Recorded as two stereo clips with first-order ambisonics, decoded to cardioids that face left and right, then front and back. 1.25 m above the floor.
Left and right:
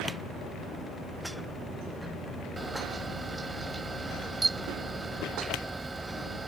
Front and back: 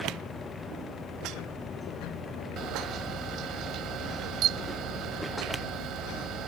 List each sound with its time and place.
2.6 s a camera shutter: 165° right